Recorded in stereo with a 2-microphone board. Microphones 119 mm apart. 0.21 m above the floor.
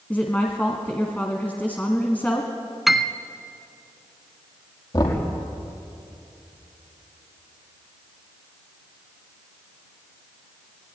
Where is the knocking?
35° left (ahead or behind), 5 m.